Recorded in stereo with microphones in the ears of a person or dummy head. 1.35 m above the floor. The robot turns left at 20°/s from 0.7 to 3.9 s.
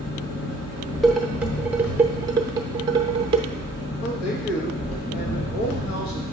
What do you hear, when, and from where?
0.0 s an engine running: 120° left, 3 m; by 6.3 s 55° left, 3 m
1.0 s dishes clattering: centre (ahead or behind), 0.6 m; by 3.5 s 30° right (ahead or behind), 0.6 m
4.0 s a man speaking: 80° left, 1.6 m